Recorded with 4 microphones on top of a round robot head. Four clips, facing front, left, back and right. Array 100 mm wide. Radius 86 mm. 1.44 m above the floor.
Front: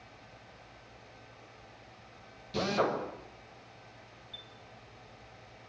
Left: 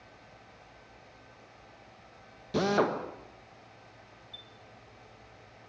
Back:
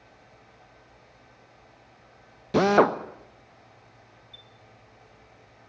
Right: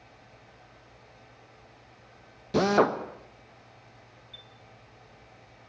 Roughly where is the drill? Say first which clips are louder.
Right 4 dB, back 11 dB; behind.